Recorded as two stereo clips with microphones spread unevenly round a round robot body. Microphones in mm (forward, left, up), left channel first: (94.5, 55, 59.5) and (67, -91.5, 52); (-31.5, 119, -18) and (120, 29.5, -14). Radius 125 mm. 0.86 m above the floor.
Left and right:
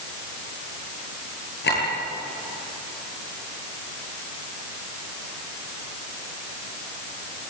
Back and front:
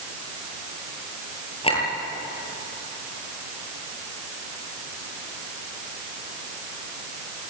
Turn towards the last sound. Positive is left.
turn(degrees=90)